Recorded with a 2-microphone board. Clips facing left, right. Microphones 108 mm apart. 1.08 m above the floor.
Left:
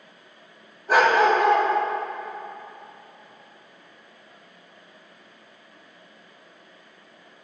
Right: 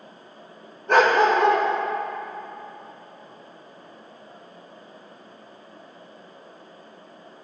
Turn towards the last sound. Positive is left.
turn(degrees=5)  # may be behind; listen again after turning